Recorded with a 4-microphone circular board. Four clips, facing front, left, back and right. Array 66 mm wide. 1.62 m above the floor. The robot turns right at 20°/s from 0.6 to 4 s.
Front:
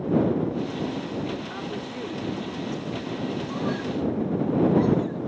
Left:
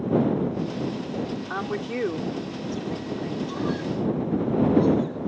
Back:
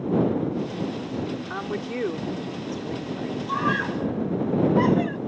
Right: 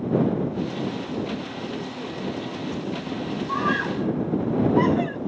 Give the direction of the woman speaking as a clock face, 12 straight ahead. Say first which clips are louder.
Left 3 dB, back 3 dB; 8 o'clock.